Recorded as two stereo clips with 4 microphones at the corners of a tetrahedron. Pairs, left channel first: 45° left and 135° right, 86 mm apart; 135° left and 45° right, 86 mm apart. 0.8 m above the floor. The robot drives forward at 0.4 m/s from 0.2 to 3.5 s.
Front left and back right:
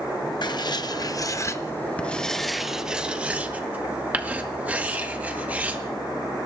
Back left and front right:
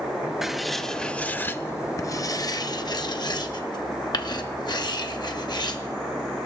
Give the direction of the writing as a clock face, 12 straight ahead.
11 o'clock.